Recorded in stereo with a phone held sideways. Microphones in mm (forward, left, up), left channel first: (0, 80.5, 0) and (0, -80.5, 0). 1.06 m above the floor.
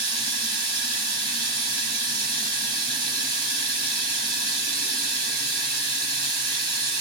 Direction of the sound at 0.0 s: 30° right (ahead or behind).